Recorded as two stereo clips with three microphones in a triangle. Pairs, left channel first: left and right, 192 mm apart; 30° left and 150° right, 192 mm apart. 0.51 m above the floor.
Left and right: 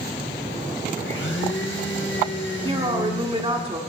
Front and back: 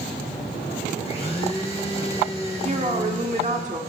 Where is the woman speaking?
135° right, 1.2 m.